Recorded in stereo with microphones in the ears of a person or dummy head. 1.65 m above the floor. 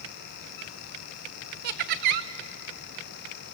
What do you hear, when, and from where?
1.6 s laughter: 50° right (ahead or behind), 1.0 m